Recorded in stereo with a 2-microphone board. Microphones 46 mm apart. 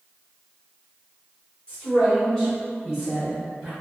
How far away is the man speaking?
About 1.4 m.